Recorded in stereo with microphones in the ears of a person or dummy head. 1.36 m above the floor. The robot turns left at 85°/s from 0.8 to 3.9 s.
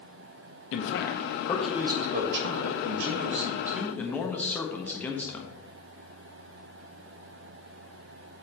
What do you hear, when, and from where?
0.7 s a man speaking: 70° left, 1.2 m; by 5.6 s 170° left, 1.2 m